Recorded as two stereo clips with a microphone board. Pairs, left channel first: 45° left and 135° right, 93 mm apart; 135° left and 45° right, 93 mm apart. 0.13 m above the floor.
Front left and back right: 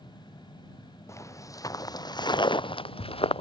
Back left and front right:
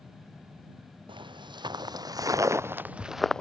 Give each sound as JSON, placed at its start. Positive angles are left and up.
{"t": 1.1, "sound": "footsteps", "azimuth_deg": -15}